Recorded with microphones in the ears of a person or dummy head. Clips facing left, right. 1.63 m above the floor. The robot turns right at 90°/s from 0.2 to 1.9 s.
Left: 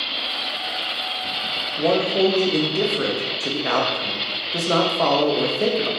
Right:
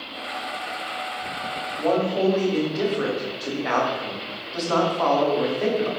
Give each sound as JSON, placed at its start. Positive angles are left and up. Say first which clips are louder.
{"t": 1.8, "sound": "a man speaking", "louder": "left 3 dB", "side_deg": 50, "distance_m": 1.4}